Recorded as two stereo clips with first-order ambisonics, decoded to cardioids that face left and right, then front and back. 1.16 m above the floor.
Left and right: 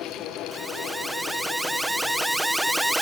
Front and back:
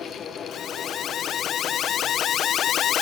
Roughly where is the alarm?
Ahead.